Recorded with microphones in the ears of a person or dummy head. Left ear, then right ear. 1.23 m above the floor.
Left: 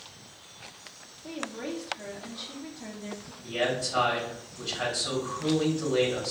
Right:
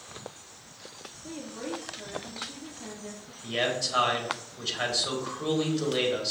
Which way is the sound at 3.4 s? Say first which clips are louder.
Even; 35° right (ahead or behind).